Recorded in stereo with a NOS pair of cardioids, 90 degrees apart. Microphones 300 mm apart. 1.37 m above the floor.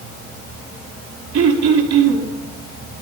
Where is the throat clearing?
65° right, 5.5 m.